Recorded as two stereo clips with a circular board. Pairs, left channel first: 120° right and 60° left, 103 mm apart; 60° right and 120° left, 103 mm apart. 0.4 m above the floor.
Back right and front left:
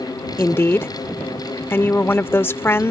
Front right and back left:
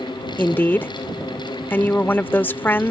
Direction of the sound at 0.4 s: 95° right.